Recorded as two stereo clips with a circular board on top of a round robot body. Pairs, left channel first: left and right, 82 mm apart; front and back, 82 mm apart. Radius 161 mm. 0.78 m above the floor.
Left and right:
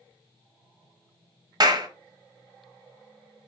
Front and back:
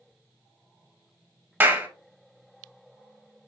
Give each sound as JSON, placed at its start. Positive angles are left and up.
{"t": 1.6, "sound": "a clap", "azimuth_deg": -120, "distance_m": 1.3}